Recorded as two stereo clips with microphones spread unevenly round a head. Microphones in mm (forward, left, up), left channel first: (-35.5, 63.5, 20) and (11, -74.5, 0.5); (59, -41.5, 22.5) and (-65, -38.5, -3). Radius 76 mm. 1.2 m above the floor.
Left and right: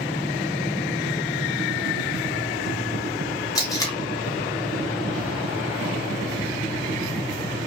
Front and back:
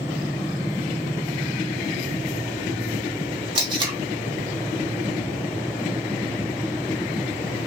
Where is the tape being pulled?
135° left, 1.1 m.